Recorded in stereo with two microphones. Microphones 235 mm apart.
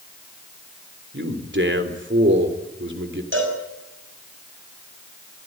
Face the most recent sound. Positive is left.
turn(degrees=-55)  # may be behind; listen again after turning